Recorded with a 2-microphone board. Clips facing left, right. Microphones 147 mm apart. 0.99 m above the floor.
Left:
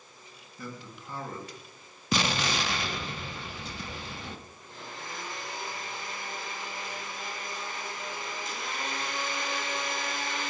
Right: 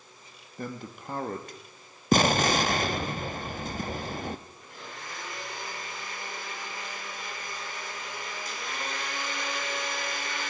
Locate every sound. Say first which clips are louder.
0.6 s a man speaking: right 5 dB; 50° right (ahead or behind), 1.3 m
2.1 s an explosion: right 7 dB; 50° right (ahead or behind), 0.6 m
4.6 s a blender: even; 25° left (ahead or behind), 4 m